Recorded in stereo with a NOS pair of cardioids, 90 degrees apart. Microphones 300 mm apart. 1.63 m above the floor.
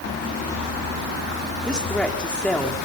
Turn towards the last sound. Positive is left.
turn(degrees=0)